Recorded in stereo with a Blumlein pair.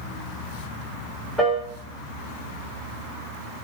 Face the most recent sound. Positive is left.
turn(degrees=-5)